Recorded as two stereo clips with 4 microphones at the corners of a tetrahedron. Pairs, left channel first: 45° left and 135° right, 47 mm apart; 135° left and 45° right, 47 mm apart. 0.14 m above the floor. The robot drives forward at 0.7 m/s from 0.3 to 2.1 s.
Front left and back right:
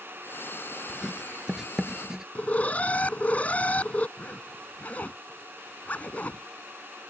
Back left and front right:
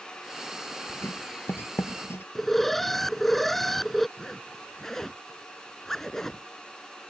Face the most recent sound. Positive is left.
turn(degrees=60)